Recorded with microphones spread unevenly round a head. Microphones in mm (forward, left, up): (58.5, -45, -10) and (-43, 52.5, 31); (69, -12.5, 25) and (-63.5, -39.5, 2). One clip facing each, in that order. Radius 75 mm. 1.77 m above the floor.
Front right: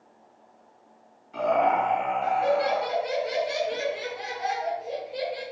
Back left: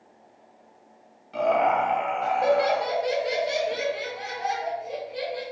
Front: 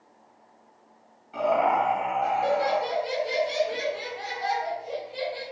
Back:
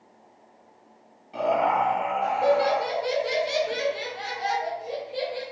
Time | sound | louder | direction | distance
1.3 | laughter | back left 1 dB, even | 130° left | 1.5 m